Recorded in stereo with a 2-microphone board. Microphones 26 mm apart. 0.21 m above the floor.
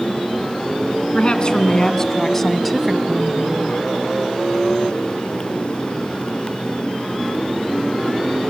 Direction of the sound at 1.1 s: 40° left (ahead or behind).